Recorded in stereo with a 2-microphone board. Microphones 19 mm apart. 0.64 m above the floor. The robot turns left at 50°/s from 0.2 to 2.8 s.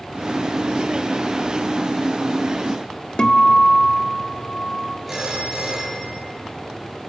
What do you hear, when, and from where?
3.2 s a guitar: 40° left (ahead or behind), 1.5 m
5.1 s a phone ringing: 10° right (ahead or behind), 8.5 m